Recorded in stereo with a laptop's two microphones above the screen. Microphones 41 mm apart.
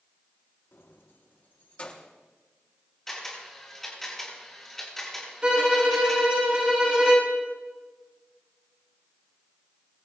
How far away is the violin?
About 3.5 m.